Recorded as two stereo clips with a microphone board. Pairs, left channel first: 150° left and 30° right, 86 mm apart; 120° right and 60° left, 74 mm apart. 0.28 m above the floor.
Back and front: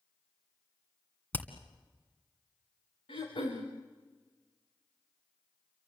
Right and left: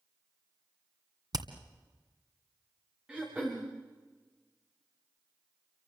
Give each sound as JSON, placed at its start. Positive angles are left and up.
{"t": 1.3, "sound": "hammering", "azimuth_deg": 80, "distance_m": 2.0}
{"t": 3.1, "sound": "throat clearing", "azimuth_deg": 135, "distance_m": 6.0}